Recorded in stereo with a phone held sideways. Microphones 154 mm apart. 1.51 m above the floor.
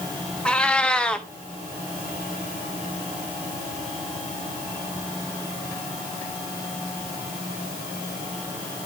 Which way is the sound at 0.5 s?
5° left (ahead or behind).